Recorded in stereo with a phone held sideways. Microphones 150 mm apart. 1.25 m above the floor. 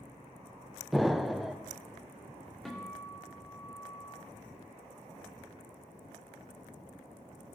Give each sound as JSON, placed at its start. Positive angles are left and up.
{"t": 0.9, "sound": "an explosion", "side_deg": 0, "distance_m": 0.6}
{"t": 2.6, "sound": "a guitar", "side_deg": 5, "distance_m": 2.5}